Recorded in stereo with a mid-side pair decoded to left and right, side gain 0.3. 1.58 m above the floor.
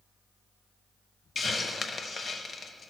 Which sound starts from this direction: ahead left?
A hiss, at 1.4 s.